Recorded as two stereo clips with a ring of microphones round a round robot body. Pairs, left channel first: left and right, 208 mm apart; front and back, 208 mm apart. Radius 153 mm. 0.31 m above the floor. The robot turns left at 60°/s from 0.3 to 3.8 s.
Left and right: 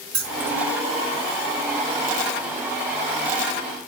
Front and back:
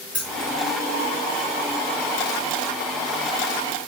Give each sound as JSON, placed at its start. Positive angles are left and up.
{"t": 0.1, "sound": "keys jangling", "azimuth_deg": -100, "distance_m": 1.9}